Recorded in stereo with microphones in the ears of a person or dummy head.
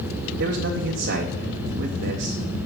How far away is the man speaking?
About 0.6 m.